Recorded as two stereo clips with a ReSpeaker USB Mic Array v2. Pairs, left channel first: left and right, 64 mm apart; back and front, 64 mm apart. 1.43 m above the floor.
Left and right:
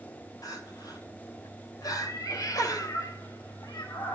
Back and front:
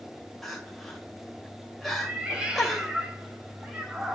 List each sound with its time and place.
0.4 s crying: 90° left, 3 m
1.9 s a cat meowing: 70° left, 2.5 m